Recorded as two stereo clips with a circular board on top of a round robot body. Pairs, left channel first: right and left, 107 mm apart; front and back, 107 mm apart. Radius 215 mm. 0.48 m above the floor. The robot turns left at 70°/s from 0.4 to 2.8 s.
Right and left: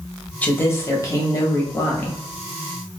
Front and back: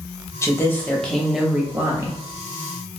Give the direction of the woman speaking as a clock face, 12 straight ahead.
1 o'clock.